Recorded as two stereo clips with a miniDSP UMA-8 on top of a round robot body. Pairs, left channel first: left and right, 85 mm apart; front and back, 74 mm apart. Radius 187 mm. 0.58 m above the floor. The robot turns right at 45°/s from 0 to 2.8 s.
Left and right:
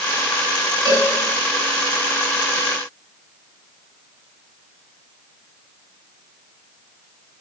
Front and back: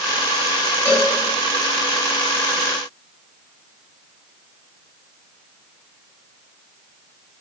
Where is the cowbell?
55° right, 7 m; by 1.1 s 45° right, 7 m.